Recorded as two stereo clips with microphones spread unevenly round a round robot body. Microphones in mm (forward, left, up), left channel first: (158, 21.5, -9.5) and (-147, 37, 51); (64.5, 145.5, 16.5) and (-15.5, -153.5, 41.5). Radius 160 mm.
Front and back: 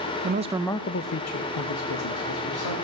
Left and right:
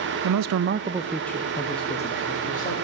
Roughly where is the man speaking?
Behind right.